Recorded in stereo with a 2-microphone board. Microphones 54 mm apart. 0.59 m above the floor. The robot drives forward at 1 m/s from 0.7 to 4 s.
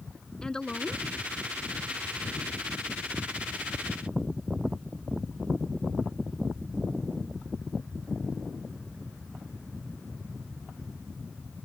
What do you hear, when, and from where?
0.4 s a woman speaking: 10° left (ahead or behind); by 1.1 s 15° left (ahead or behind)